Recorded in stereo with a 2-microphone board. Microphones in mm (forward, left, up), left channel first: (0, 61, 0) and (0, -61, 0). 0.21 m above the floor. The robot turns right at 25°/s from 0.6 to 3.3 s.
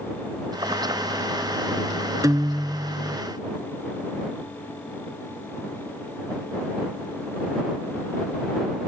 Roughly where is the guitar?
Right.